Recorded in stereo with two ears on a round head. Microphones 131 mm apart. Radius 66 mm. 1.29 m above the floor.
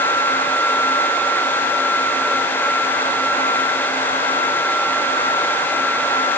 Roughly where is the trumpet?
No trumpet in this recording.